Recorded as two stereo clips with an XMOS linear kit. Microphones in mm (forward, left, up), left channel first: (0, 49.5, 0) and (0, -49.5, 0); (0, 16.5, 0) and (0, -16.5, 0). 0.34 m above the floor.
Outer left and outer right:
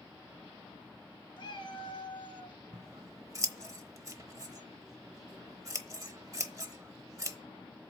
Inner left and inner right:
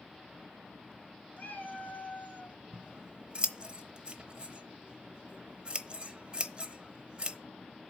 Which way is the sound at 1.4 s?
50° left (ahead or behind).